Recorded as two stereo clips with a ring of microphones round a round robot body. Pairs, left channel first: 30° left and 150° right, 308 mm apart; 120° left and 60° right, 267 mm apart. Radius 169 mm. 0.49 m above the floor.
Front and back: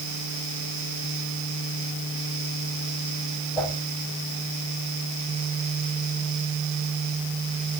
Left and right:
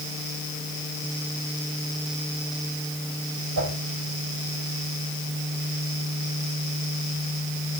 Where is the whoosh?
55° right, 7.5 m.